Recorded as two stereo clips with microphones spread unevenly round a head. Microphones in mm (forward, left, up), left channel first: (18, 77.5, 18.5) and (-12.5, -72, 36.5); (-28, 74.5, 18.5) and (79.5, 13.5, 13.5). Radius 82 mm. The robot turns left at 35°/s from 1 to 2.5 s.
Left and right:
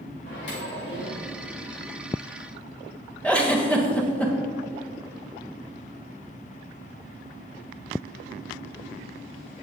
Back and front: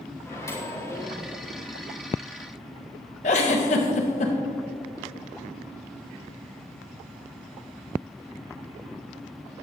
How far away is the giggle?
About 1.3 m.